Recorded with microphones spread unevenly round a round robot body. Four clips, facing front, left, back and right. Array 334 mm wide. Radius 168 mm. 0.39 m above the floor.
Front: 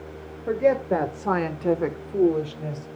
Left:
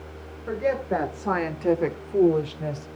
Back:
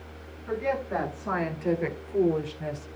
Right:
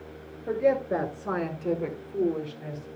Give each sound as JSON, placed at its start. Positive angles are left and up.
{"t": 0.5, "sound": "a woman speaking", "azimuth_deg": -10, "distance_m": 2.0}